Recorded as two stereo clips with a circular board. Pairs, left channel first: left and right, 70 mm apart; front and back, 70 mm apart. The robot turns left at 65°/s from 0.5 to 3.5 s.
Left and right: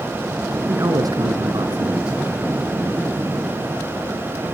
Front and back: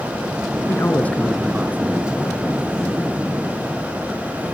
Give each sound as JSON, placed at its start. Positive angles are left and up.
{"t": 0.7, "sound": "a man speaking", "azimuth_deg": -45, "distance_m": 2.5}